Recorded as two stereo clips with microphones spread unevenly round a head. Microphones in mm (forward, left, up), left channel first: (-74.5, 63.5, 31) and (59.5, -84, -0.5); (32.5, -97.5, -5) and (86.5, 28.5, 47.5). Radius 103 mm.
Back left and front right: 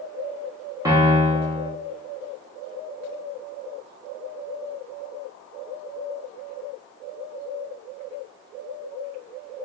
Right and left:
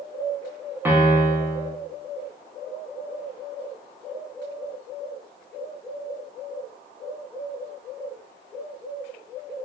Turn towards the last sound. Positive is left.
turn(degrees=30)